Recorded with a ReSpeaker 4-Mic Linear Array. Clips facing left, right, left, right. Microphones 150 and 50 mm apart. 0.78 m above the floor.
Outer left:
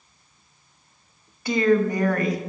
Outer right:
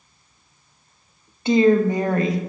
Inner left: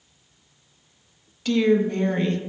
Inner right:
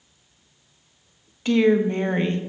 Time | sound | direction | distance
1.4 | a woman speaking | 25° right (ahead or behind) | 0.8 m